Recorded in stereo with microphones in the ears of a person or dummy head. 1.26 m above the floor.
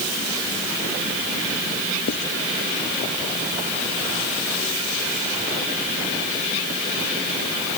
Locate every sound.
2.1 s writing: 60° left (ahead or behind)